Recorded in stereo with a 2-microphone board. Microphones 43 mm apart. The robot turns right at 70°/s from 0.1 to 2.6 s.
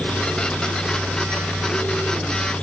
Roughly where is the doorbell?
No doorbell in this recording.